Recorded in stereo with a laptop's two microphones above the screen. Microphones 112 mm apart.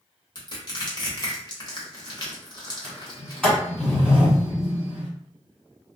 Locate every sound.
0.3 s crushing: 40° left (ahead or behind), 1.0 m
2.8 s a sliding door: 5° left (ahead or behind), 1.4 m